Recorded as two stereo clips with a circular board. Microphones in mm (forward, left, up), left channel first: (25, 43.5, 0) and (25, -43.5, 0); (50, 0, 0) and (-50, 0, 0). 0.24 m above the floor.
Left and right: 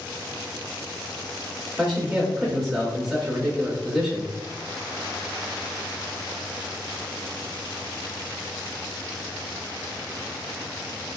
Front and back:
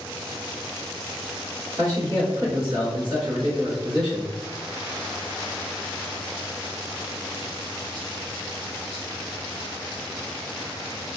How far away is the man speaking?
About 1.1 m.